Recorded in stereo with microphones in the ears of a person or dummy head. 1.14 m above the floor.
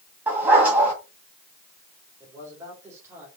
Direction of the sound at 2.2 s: 15° right (ahead or behind).